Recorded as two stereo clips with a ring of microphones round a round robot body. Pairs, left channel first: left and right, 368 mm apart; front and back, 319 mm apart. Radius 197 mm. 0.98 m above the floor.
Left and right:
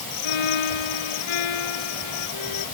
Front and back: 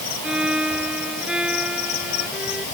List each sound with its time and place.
0.2 s a violin: 95° left